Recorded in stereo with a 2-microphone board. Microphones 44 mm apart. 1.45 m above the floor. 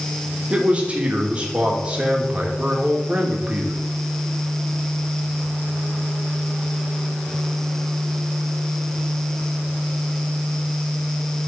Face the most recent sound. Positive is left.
turn(degrees=-25)  # may be behind; listen again after turning